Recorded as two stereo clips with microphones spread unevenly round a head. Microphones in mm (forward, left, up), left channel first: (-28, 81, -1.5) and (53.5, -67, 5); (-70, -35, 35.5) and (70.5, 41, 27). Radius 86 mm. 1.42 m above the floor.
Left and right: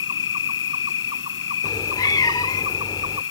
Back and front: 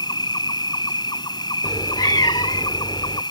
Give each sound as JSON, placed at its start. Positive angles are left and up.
{"t": 0.0, "sound": "an insect", "azimuth_deg": 145}
{"t": 1.6, "sound": "a cat meowing", "azimuth_deg": 170}